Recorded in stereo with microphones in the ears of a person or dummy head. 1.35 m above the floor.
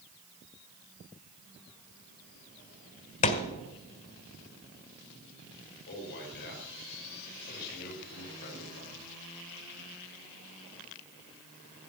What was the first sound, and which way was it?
A thud, 30° left (ahead or behind).